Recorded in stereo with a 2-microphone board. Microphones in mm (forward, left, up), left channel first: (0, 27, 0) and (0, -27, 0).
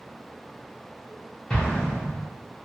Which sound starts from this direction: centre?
An explosion, at 1.5 s.